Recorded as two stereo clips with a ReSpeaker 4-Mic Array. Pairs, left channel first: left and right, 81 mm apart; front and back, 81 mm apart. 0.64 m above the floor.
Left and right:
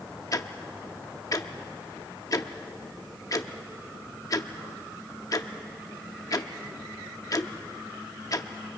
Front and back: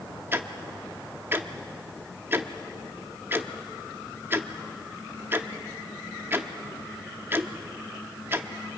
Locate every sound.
0.3 s ticking: 125° left, 0.8 m